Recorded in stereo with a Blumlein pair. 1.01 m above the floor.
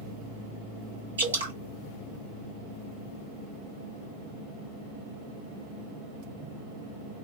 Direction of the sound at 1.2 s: 70° right.